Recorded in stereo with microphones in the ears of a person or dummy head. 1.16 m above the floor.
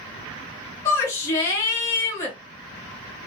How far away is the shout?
About 0.9 m.